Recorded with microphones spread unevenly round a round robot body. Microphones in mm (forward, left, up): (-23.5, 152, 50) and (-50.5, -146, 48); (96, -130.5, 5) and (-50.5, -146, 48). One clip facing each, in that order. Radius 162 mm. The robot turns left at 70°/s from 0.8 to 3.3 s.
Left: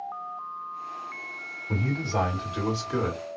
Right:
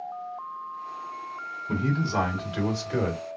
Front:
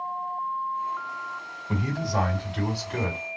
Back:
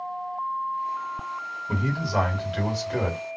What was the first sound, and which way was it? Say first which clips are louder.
A man speaking: right 2 dB, back 1 dB; 120° right.